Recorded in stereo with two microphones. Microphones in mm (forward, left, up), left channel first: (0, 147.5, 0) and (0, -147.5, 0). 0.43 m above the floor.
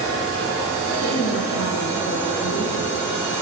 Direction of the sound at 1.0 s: 50° left (ahead or behind).